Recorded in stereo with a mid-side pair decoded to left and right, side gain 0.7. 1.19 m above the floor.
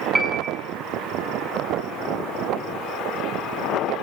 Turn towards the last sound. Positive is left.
turn(degrees=-5)